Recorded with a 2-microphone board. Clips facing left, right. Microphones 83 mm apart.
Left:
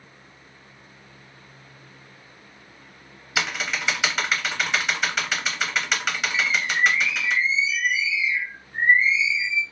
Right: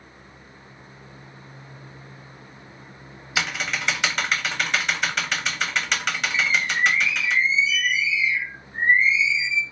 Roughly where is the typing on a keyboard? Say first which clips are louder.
Even; centre.